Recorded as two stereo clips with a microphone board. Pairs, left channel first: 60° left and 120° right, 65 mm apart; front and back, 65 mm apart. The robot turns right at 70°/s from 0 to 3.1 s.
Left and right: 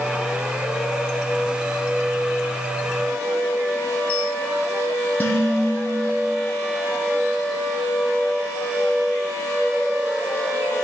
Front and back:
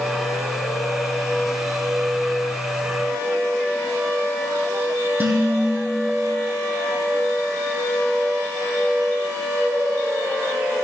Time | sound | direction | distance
5.2 | dishes clattering | 120° left | 3 m